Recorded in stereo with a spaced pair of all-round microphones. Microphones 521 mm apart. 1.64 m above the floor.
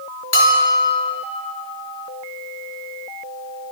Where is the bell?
60° left (ahead or behind), 2.5 m.